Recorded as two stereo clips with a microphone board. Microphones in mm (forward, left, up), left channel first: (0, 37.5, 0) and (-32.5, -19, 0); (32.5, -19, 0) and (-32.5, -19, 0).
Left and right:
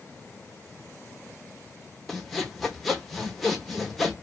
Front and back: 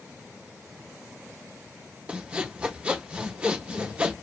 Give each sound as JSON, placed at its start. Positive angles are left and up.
{"t": 2.1, "sound": "sawing", "azimuth_deg": 145, "distance_m": 0.8}